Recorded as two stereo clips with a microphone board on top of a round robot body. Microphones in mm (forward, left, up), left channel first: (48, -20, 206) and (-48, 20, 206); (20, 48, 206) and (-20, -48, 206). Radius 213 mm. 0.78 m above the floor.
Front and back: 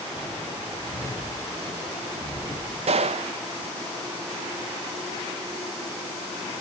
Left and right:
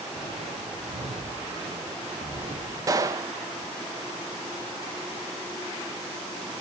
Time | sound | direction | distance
0.1 | footsteps | 95° right | 5 m
2.9 | a gunshot | 175° right | 0.5 m